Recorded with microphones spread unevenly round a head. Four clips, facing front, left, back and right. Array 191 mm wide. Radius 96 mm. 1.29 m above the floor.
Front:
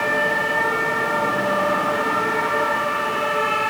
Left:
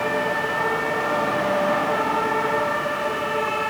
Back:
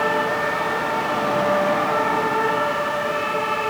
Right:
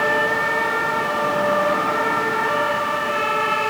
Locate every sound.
Only background noise.